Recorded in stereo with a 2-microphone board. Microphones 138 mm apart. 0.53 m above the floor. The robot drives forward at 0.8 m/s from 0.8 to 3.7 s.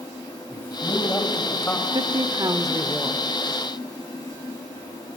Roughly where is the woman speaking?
Right.